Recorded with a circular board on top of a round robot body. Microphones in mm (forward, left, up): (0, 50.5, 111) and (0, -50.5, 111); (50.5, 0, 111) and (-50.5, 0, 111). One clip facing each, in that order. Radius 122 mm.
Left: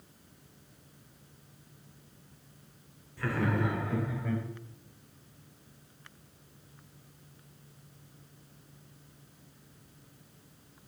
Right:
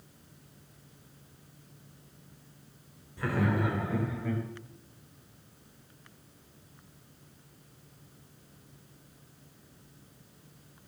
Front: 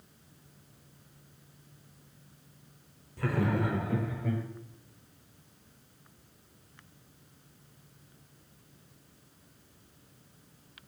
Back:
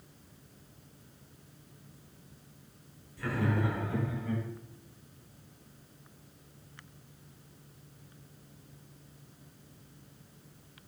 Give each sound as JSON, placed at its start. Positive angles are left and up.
{"t": 3.2, "sound": "laughter", "azimuth_deg": -20, "distance_m": 2.5}